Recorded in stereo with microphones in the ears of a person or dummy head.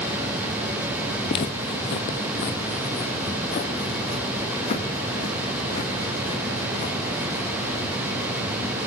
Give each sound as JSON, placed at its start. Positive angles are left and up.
{"t": 1.3, "sound": "footsteps", "side_deg": 35, "distance_m": 2.0}